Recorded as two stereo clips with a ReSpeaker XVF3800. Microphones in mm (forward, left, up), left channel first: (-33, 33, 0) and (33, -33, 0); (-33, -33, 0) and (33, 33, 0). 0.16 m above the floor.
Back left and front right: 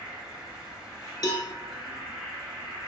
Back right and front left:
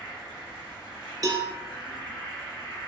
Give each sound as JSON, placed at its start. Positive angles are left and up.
{"t": 0.0, "sound": "an insect", "azimuth_deg": -130, "distance_m": 1.7}
{"t": 1.2, "sound": "a cowbell", "azimuth_deg": 90, "distance_m": 0.5}